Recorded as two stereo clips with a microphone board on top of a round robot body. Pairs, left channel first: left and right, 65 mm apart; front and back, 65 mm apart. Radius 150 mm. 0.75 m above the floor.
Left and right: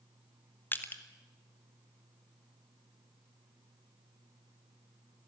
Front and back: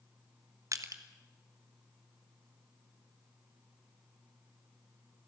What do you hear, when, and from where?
0.7 s crushing: 150° left, 2 m